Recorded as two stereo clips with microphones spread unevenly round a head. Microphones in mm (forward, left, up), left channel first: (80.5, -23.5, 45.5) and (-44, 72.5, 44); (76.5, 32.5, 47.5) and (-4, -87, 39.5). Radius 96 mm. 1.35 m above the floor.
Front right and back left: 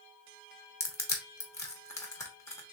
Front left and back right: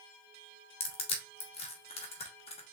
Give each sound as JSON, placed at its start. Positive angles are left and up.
{"t": 0.8, "sound": "crushing", "azimuth_deg": 30, "distance_m": 1.0}